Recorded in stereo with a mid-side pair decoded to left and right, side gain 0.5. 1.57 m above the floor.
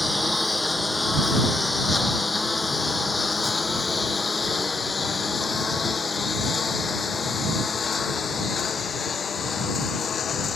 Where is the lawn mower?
10° left; by 10.6 s 40° left.